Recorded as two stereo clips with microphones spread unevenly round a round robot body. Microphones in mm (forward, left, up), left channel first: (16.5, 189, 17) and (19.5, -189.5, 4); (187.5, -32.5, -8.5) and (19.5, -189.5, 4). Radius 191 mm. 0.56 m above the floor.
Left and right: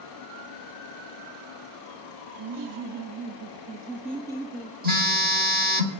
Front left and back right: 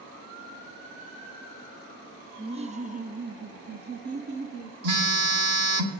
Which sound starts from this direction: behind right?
A phone buzzing, at 4.8 s.